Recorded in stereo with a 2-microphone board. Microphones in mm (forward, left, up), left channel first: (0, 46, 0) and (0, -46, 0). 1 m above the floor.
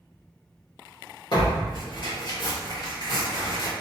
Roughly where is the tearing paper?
Left.